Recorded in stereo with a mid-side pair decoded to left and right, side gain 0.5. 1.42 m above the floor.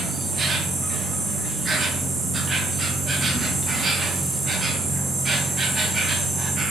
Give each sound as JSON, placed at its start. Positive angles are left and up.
{"t": 0.0, "sound": "an insect", "azimuth_deg": -40, "distance_m": 0.7}